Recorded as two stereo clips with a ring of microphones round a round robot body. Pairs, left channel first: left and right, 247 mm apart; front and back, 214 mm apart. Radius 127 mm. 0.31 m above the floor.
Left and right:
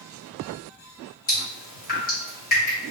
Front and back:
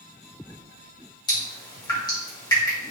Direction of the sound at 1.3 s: 60° left.